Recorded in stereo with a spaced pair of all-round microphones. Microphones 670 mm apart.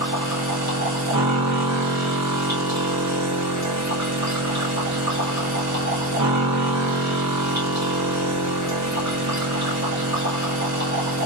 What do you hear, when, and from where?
0.0 s a machine running: 25° right (ahead or behind), 1.7 m